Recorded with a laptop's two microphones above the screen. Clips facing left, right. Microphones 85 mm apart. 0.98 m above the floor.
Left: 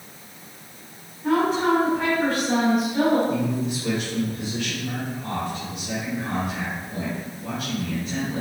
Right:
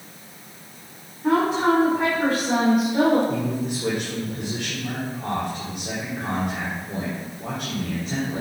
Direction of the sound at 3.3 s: 60° right (ahead or behind).